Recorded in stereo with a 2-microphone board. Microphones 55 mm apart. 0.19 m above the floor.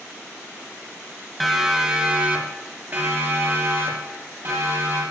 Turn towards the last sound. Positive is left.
turn(degrees=-55)  # may be behind; listen again after turning